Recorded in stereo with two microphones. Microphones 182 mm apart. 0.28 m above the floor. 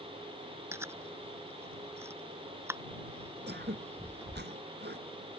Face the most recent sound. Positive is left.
turn(degrees=-75)  # may be behind; listen again after turning